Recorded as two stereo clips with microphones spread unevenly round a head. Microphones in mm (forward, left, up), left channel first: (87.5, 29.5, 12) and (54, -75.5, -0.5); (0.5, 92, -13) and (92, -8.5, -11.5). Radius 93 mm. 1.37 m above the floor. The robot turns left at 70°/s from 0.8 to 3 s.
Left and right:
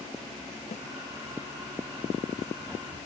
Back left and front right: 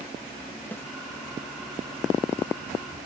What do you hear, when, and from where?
0.7 s a snare drum: 55° left, 1.6 m; by 0.8 s 50° left, 1.6 m